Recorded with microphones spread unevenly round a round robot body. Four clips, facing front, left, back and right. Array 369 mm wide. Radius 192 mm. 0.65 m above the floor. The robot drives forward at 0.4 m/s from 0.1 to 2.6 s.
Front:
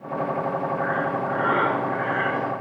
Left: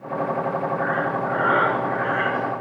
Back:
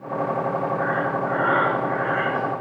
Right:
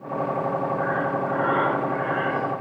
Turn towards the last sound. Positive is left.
turn(degrees=110)